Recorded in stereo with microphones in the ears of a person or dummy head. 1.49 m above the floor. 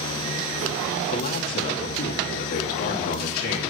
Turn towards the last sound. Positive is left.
turn(degrees=55)  # may be behind; listen again after turning